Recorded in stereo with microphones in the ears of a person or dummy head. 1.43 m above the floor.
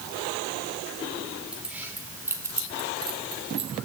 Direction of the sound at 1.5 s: 5° right (ahead or behind).